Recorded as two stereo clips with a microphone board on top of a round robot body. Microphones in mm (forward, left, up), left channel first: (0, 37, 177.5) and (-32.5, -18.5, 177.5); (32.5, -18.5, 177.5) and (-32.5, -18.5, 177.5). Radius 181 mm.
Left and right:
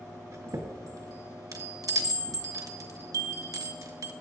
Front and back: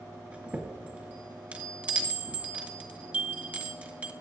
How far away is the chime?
About 1.9 m.